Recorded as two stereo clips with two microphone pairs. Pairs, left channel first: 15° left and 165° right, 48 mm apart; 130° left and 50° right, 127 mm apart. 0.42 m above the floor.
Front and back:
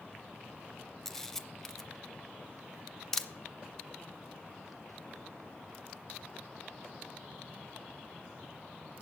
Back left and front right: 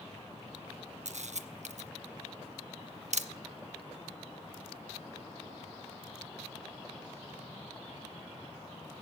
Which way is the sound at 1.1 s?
65° right.